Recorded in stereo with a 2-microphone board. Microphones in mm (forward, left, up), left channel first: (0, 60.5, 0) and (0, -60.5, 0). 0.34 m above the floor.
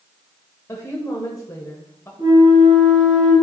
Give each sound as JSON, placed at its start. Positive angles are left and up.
{"t": 0.7, "sound": "a woman speaking", "side_deg": 25, "distance_m": 1.1}
{"t": 2.2, "sound": "a flute", "side_deg": -35, "distance_m": 2.0}